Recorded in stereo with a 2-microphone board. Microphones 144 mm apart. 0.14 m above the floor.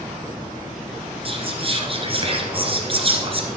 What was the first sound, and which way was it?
Whispering, 40° right (ahead or behind).